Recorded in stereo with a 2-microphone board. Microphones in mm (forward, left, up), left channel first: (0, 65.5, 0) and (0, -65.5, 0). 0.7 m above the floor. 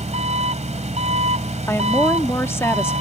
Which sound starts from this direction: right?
An engine running, at 0.0 s.